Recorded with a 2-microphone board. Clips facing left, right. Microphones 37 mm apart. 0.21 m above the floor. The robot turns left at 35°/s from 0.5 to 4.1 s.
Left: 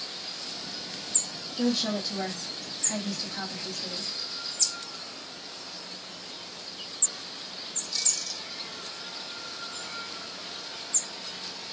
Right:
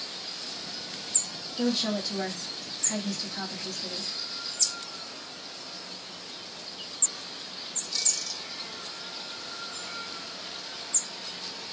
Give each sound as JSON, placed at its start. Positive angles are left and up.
{"t": 1.6, "sound": "a woman speaking", "side_deg": -5, "distance_m": 1.0}